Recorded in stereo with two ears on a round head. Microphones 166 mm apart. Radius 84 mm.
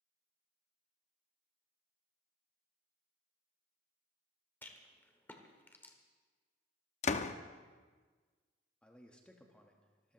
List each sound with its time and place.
4.6 s a rattle: 10° left (ahead or behind), 1.4 m
7.0 s a door slam: 40° left (ahead or behind), 0.7 m
8.8 s a man speaking: 5° left (ahead or behind), 1.1 m